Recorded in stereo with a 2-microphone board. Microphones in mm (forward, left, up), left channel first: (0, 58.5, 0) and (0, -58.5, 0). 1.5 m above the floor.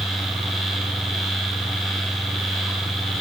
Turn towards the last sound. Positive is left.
No sound to turn to.